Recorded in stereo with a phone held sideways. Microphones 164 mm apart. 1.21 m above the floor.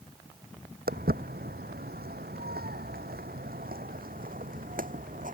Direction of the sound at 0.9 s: 65° right (ahead or behind).